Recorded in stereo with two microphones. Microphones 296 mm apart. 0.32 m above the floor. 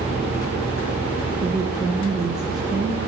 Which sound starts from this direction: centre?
A woman speaking, at 1.4 s.